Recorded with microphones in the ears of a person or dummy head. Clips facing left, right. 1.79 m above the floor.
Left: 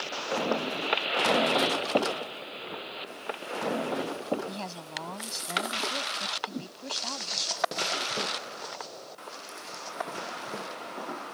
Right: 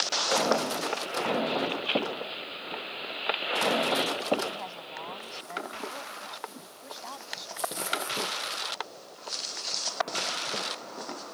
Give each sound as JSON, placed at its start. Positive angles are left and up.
{"t": 4.5, "sound": "a woman speaking", "side_deg": 55}
{"t": 6.5, "sound": "a whoosh", "side_deg": 60}